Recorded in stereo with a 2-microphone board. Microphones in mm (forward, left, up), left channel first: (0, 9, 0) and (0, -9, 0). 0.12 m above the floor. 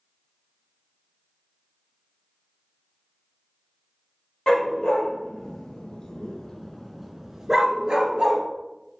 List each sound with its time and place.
4.5 s a dog barking: 65° left (ahead or behind), 1.5 m; by 8.4 s 55° right (ahead or behind), 1.1 m